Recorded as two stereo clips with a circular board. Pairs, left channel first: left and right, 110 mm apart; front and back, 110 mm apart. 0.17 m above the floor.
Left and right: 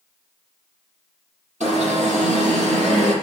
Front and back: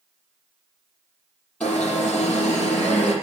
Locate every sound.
1.6 s an alarm: 80° right, 7 m